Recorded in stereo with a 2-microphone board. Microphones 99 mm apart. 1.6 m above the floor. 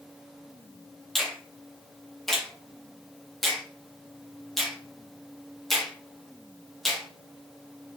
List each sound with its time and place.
1.1 s a finger snap: 5° left (ahead or behind), 1.3 m